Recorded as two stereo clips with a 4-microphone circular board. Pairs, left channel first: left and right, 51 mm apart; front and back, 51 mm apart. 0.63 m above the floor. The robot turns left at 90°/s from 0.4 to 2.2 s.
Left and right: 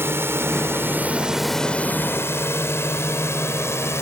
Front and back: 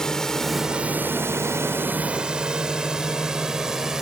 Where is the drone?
75° right; by 4.0 s 105° left.